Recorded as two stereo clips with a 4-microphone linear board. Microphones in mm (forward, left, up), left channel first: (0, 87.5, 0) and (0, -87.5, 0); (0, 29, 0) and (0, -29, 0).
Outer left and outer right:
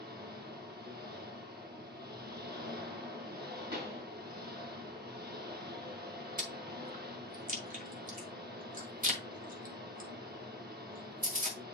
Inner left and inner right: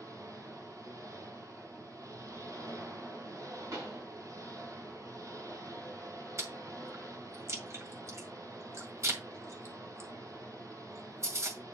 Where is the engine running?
75° right (ahead or behind), 2.5 m.